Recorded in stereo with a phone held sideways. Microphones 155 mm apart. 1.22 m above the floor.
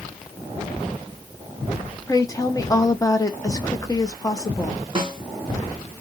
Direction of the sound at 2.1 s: 20° left (ahead or behind).